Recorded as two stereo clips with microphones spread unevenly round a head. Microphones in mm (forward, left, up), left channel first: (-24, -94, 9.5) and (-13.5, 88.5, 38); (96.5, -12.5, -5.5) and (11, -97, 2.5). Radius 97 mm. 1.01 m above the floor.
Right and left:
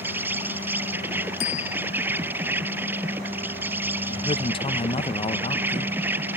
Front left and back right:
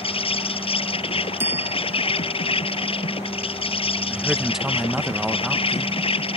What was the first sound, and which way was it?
An insect, 5° left.